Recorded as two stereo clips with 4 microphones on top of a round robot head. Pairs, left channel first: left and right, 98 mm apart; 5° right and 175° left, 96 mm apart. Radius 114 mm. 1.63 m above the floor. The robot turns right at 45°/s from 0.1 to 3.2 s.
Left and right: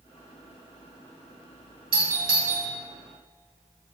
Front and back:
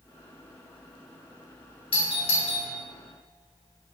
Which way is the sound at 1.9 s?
45° right.